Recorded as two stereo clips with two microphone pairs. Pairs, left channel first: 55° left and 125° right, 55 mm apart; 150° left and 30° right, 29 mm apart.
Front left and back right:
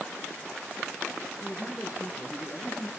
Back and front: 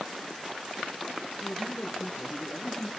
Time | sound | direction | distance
1.4 | a man speaking | 140° left | 4 m